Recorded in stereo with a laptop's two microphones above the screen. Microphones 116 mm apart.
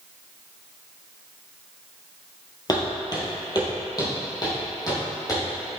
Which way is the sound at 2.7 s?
35° left (ahead or behind).